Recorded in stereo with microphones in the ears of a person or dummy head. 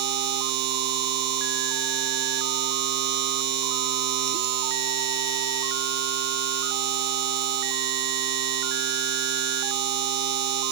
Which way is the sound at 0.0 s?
60° right (ahead or behind).